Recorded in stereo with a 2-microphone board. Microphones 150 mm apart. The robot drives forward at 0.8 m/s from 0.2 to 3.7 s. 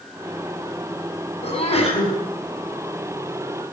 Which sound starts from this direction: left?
A sneeze, at 1.4 s.